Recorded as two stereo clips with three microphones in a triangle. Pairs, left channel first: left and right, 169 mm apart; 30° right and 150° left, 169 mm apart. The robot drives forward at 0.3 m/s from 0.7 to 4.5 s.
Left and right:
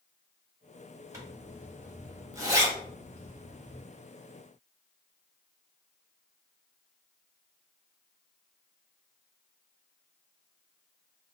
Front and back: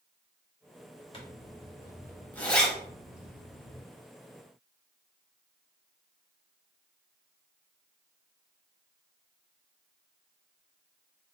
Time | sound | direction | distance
1.1 | a zipper | 35° right | 0.8 m